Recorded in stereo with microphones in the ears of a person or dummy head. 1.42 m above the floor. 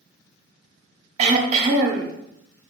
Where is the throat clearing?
45° right (ahead or behind), 0.9 m.